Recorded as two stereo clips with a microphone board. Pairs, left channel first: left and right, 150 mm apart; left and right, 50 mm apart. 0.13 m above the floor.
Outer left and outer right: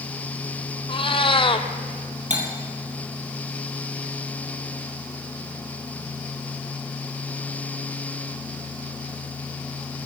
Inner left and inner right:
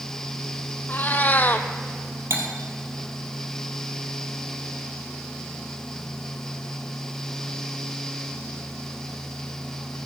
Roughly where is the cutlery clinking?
Right.